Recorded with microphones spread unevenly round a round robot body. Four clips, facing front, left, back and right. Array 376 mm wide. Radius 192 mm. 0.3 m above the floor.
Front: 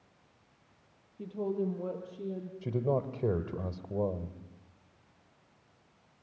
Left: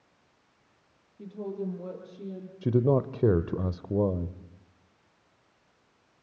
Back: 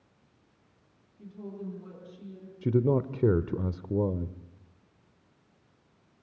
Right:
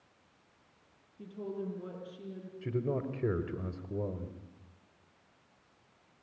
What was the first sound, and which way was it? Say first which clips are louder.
A woman speaking: left 4 dB, front 8 dB; 10° left.